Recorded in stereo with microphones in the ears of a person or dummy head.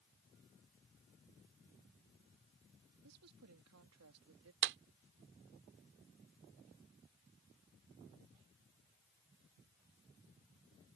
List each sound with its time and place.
3.0 s a woman speaking: 85° right; by 4.5 s 75° right (ahead or behind)
4.6 s a clap: 65° right (ahead or behind)